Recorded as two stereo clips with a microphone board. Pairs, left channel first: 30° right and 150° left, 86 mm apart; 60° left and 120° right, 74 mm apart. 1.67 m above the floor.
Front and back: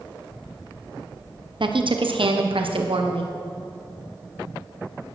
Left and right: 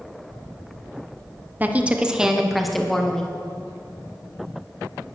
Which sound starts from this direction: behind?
A woman speaking, at 1.6 s.